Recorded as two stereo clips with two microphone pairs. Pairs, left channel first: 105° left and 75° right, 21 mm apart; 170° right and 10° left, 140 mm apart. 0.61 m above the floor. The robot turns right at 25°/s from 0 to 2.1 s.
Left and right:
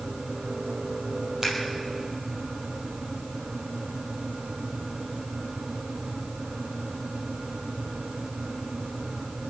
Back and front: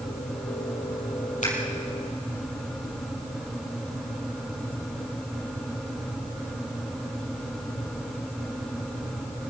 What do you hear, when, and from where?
1.4 s scissors: 145° right, 4.5 m; by 1.5 s 140° right, 4.5 m